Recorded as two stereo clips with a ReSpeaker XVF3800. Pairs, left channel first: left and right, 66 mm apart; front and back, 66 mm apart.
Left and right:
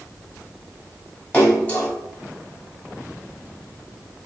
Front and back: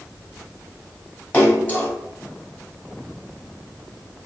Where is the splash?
40° left, 1.1 m.